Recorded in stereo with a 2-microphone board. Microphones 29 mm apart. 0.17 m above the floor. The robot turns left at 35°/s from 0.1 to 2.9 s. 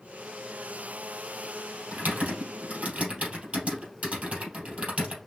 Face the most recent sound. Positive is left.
turn(degrees=-40)  # may be behind; listen again after turning